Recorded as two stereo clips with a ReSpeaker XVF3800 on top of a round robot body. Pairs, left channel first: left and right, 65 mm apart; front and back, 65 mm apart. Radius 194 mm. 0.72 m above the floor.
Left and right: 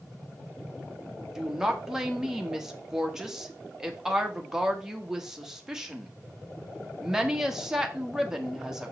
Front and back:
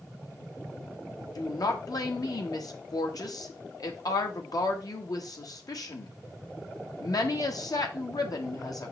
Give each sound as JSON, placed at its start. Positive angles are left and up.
{"t": 1.4, "sound": "a woman speaking", "azimuth_deg": -10, "distance_m": 1.4}